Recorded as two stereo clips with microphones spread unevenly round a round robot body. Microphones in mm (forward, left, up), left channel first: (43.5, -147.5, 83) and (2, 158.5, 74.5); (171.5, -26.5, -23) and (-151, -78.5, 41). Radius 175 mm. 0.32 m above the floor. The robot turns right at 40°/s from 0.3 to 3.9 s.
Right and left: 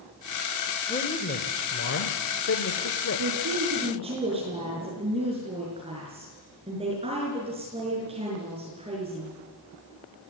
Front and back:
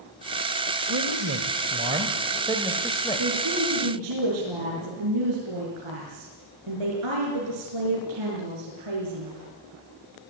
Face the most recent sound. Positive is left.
turn(degrees=170)